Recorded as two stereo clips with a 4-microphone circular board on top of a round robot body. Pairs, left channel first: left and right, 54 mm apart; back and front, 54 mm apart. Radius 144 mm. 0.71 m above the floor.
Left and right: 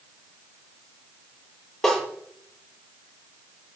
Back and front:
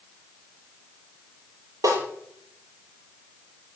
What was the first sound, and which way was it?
A snare drum, 10° left.